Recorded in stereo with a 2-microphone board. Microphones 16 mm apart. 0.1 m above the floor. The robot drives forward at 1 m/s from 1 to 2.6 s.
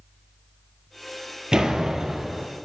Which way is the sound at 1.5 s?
55° right (ahead or behind).